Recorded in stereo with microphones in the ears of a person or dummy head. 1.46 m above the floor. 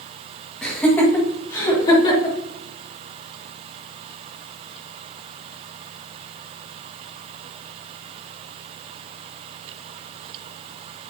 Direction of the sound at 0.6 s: Centre (ahead or behind).